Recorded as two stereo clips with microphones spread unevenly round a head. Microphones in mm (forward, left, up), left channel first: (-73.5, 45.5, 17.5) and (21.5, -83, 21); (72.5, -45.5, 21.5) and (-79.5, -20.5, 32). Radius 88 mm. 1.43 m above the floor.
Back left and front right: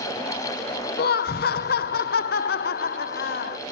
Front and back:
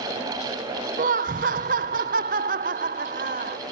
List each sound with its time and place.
1.0 s laughter: 135° left